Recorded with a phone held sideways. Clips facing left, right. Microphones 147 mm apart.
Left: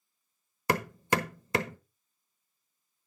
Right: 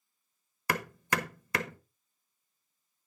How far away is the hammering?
About 1.0 m.